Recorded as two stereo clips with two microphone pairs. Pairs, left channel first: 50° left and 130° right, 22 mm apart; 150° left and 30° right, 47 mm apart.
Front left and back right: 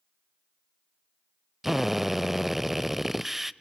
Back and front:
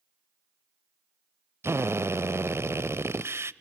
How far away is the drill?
About 0.6 m.